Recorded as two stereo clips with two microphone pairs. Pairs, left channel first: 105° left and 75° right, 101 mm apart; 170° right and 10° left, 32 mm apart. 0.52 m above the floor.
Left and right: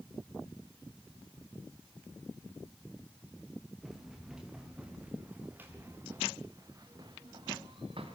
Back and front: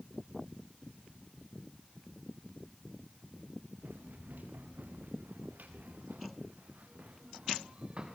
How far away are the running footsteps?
About 6 m.